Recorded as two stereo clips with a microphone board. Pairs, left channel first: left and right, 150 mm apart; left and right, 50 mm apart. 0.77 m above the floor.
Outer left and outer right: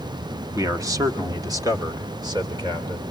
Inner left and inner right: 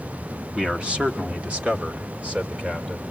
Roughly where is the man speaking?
Right.